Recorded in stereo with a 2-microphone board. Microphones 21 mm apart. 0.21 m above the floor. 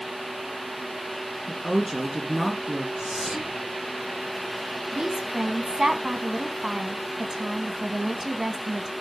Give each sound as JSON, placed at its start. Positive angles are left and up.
{"t": 1.5, "sound": "a woman speaking", "side_deg": -10, "distance_m": 2.5}
{"t": 3.0, "sound": "whispering", "side_deg": -20, "distance_m": 6.0}
{"t": 4.9, "sound": "a woman speaking", "side_deg": -40, "distance_m": 1.7}